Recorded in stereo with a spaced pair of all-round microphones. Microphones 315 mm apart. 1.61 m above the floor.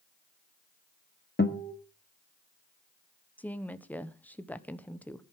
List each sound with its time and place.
1.4 s a guitar: 35° left (ahead or behind), 1.9 m
3.4 s a woman speaking: 5° left (ahead or behind), 1.2 m